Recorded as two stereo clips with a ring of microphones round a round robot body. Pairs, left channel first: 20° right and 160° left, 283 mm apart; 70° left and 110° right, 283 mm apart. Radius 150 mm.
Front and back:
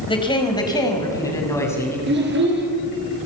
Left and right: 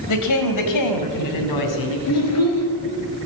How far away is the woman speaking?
About 3 m.